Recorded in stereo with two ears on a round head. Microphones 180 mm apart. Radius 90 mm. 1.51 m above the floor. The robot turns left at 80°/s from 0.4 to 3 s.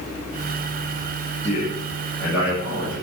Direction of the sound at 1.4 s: 70° left (ahead or behind).